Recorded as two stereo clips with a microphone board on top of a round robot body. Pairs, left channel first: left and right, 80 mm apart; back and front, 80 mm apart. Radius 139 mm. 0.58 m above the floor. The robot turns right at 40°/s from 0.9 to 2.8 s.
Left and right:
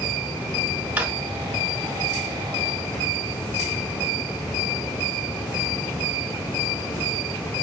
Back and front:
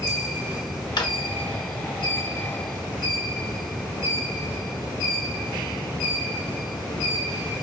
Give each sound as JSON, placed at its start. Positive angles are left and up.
{"t": 1.0, "sound": "a drawer", "azimuth_deg": -160, "distance_m": 1.1}